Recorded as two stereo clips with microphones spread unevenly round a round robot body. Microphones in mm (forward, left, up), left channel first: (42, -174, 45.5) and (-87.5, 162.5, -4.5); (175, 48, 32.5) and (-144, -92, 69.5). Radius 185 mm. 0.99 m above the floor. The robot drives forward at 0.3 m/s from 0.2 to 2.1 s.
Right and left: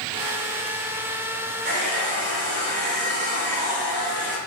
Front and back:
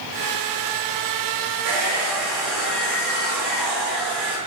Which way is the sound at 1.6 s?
175° left.